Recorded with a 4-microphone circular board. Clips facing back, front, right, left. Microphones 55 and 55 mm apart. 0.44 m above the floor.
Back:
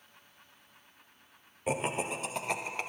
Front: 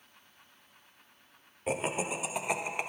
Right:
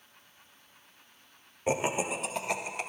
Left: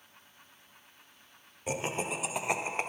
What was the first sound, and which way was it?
Laughter, 95° right.